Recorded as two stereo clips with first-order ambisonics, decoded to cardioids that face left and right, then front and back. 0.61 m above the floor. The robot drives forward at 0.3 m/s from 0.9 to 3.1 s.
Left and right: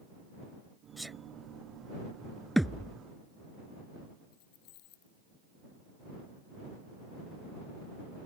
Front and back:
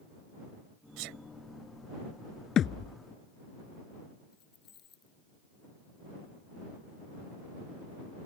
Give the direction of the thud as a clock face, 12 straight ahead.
12 o'clock.